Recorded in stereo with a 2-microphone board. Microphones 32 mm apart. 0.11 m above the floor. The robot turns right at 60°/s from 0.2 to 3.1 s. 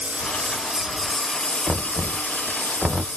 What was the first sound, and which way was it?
A lawn mower, 45° right.